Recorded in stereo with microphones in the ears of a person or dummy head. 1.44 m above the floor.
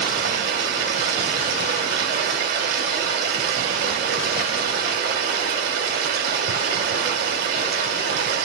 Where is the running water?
55° right (ahead or behind), 3 m.